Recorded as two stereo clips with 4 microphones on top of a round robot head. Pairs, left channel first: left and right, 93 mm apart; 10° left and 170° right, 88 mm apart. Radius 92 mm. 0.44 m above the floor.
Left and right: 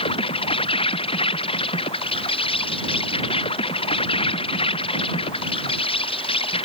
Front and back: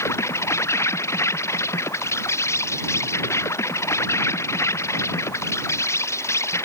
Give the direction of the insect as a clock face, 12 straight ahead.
10 o'clock.